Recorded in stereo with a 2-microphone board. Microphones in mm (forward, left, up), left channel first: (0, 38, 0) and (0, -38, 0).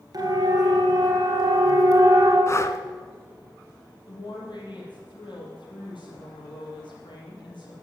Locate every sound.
0.1 s a siren: 50° right (ahead or behind), 3.5 m; by 2.4 s 45° right (ahead or behind), 3 m
2.5 s breathing: 35° left (ahead or behind), 0.9 m
4.1 s a woman speaking: 70° left (ahead or behind), 5.5 m